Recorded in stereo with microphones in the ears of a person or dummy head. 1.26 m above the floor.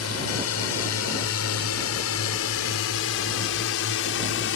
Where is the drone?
80° left; by 4.6 s 65° left (ahead or behind).